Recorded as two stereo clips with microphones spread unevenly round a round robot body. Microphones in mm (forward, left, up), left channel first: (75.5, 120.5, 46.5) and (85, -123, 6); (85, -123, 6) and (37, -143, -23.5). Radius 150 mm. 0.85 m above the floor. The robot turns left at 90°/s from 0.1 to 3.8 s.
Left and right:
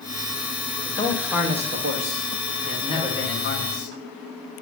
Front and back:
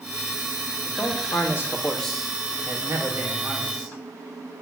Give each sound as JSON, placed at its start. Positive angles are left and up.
{"t": 0.8, "sound": "a man speaking", "azimuth_deg": 35, "distance_m": 1.3}